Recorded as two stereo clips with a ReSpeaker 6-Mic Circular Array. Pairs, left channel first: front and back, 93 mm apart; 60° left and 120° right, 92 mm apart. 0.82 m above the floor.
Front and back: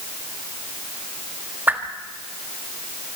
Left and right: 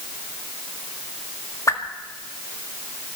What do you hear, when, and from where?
1.7 s a whoosh: 110° left, 1.7 m